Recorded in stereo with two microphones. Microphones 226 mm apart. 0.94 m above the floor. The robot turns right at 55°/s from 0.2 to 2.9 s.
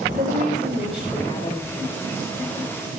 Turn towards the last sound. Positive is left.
turn(degrees=110)